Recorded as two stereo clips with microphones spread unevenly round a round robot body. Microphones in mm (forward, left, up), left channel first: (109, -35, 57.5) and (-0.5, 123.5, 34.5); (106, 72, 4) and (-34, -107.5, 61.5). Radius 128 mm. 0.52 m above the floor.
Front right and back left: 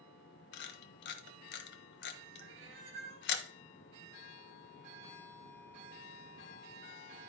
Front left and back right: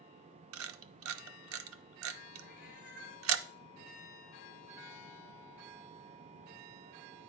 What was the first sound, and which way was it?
A camera shutter, 95° right.